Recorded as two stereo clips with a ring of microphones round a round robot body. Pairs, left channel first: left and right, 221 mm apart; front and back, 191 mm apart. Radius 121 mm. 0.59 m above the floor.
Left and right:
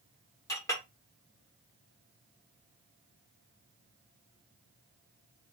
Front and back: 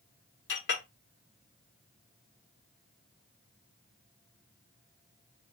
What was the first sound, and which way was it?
A clink, 15° left.